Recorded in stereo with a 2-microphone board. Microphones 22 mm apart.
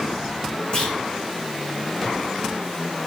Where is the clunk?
50° left (ahead or behind), 8.5 m.